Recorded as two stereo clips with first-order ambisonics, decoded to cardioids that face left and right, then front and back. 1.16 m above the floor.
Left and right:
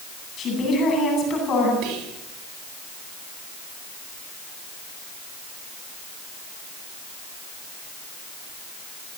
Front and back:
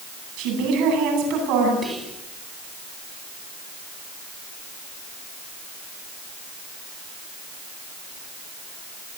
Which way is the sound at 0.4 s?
150° left.